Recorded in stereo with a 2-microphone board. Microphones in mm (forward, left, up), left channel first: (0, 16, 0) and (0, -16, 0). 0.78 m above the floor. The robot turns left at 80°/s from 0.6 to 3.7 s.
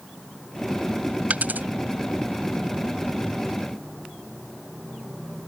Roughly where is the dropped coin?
Right.